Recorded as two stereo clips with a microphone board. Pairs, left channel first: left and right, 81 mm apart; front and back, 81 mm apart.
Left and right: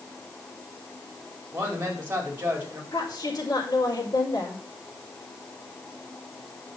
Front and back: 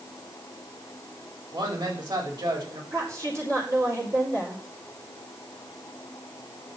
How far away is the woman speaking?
About 5 m.